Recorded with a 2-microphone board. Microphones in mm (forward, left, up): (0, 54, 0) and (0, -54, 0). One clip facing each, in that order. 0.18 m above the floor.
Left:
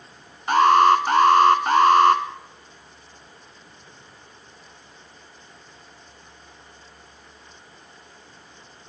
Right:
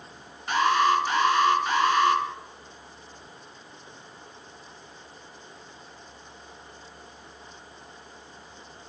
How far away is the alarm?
About 1.7 m.